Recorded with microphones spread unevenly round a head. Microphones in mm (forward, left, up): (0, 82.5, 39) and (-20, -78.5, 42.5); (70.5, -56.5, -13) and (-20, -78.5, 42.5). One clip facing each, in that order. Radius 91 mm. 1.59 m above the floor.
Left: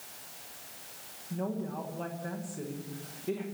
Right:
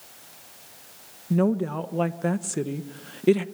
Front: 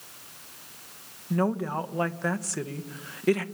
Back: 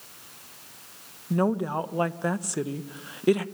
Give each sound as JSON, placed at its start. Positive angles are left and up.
{"t": 1.3, "sound": "a woman speaking", "azimuth_deg": -110, "distance_m": 1.3}